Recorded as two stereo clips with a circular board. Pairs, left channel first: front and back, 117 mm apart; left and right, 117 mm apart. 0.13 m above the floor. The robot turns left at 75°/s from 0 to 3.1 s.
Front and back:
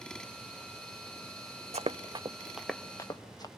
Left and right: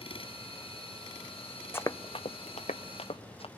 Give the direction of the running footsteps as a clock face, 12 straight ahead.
7 o'clock.